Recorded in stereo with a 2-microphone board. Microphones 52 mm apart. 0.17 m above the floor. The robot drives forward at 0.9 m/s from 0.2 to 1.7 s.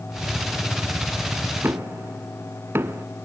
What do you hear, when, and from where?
1.6 s knocking: 50° right (ahead or behind), 1.0 m